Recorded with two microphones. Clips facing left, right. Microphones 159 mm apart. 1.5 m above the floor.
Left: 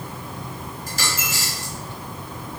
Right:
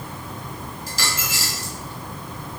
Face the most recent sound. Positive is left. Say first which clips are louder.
# left 1 dB
turn(degrees=50)  # may be behind; listen again after turning